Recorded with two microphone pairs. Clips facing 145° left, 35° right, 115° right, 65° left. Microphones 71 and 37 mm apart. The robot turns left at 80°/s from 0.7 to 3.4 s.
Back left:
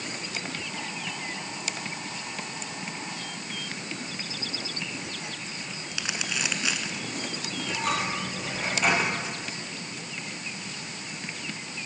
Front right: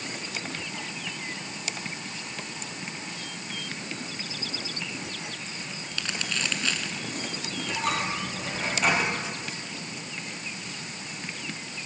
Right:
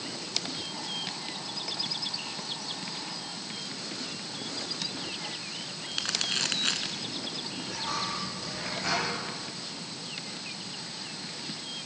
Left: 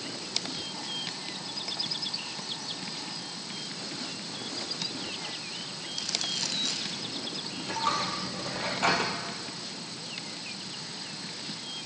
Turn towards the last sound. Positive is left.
turn(degrees=55)